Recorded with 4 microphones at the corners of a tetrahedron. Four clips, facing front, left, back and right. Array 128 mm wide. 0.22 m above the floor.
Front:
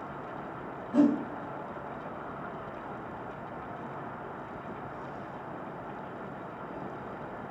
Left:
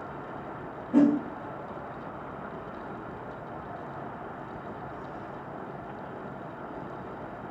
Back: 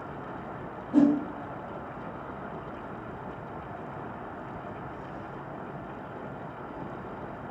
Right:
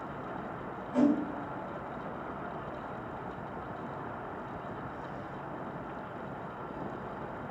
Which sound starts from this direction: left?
A whoosh, at 0.9 s.